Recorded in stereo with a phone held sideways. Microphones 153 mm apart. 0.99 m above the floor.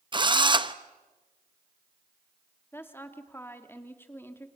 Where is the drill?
30° right (ahead or behind), 0.7 m.